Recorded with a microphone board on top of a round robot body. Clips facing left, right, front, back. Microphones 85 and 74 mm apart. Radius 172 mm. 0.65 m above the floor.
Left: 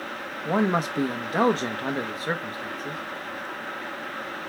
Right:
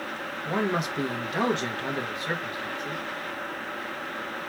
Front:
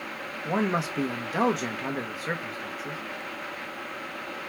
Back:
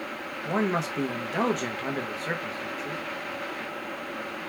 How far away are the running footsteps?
I don't hear running footsteps.